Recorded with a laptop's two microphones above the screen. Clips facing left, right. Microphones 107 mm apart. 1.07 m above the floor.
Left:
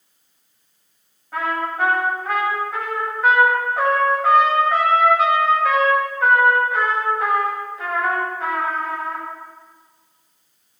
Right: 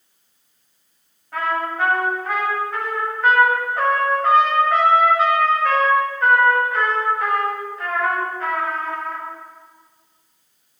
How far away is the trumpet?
About 6 m.